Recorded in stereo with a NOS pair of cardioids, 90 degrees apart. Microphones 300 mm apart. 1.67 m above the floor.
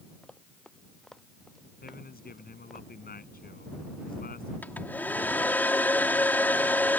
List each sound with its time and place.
0.2 s running footsteps: straight ahead
1.8 s a man speaking: 30° left
4.6 s a hair dryer: 5° left